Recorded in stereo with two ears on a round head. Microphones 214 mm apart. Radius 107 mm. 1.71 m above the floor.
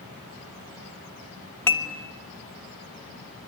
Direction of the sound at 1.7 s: 10° left (ahead or behind).